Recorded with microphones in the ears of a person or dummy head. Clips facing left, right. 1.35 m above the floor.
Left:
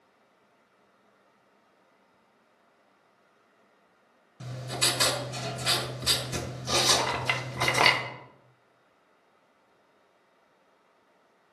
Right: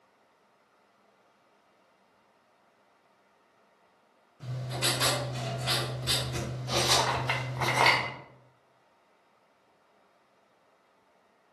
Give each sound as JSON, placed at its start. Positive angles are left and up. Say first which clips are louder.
{"t": 4.4, "sound": "writing", "louder": "even", "side_deg": 65, "distance_m": 1.4}
{"t": 7.0, "sound": "a clink", "louder": "even", "side_deg": 30, "distance_m": 0.7}